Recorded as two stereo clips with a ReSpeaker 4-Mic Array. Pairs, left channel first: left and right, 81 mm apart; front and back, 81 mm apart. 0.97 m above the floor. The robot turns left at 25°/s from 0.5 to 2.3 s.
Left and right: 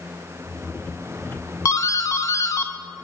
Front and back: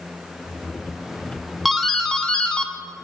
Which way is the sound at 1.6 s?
90° left.